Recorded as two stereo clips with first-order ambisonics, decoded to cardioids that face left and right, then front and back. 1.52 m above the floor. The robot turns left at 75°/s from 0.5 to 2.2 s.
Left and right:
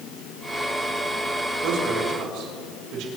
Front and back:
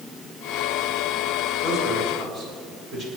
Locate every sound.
1.6 s a man speaking: 75° right, 5.5 m; by 3.1 s 120° right, 5.5 m